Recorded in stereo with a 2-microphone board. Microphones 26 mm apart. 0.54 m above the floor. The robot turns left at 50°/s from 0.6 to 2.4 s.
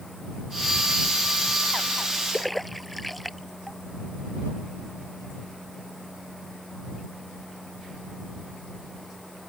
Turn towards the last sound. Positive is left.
turn(degrees=5)  # may be behind; listen again after turning